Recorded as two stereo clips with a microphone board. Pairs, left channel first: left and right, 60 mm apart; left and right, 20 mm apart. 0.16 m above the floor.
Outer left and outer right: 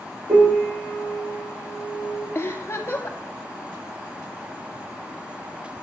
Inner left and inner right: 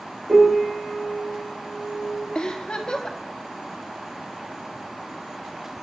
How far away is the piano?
About 5.5 m.